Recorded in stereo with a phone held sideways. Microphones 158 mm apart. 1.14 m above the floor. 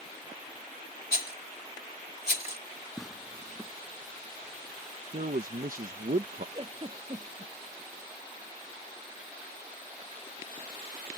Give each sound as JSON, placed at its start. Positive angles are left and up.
{"t": 1.1, "sound": "a rattle", "side_deg": 80}
{"t": 3.0, "sound": "tearing paper", "side_deg": 0}
{"t": 5.1, "sound": "a man speaking", "side_deg": -60}
{"t": 6.5, "sound": "a giggle", "side_deg": -35}